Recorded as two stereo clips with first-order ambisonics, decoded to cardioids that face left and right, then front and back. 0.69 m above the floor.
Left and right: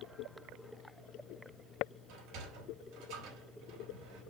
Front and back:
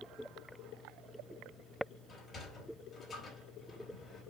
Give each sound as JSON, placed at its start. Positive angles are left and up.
{"t": 2.1, "sound": "a sliding door", "azimuth_deg": -70, "distance_m": 3.5}